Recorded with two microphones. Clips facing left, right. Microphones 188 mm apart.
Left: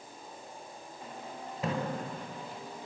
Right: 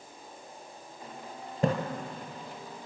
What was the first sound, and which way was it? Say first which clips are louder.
A splash: right 7 dB; 50° right (ahead or behind).